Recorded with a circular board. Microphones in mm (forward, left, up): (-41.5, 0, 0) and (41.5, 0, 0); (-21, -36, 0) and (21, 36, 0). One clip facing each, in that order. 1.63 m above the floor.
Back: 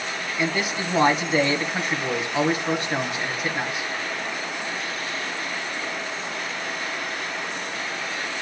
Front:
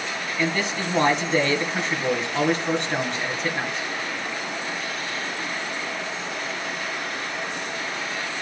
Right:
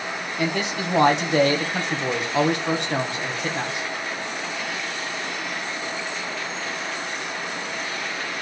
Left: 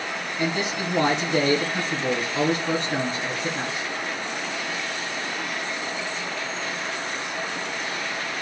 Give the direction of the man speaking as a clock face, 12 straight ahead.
3 o'clock.